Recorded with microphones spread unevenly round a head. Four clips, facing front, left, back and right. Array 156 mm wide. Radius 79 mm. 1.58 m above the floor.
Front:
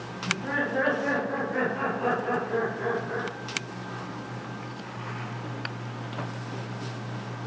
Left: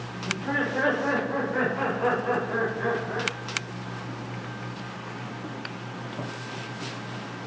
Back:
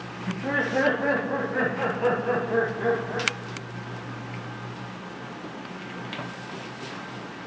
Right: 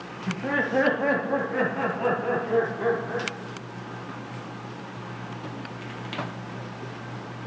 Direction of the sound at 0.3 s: 115° right.